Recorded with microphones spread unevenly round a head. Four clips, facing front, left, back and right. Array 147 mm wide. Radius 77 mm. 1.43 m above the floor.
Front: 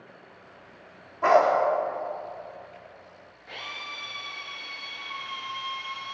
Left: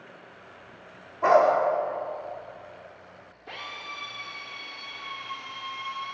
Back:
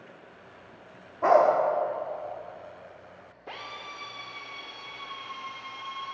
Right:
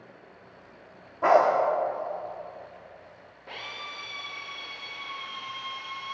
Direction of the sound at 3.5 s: Straight behind.